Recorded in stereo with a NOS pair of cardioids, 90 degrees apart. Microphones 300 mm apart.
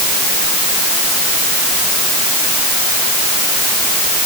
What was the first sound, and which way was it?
Only background noise.